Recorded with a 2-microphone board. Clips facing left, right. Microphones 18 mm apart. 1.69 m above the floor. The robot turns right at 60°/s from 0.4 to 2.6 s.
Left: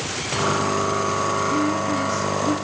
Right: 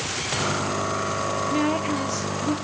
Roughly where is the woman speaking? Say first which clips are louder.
Left 2 dB; ahead right.